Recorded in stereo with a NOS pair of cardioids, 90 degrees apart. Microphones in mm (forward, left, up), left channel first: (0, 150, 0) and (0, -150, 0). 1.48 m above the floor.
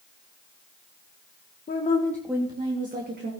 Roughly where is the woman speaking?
Ahead left.